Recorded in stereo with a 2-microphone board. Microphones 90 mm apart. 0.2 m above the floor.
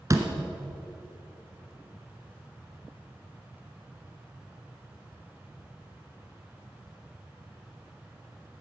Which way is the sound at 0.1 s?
35° right (ahead or behind).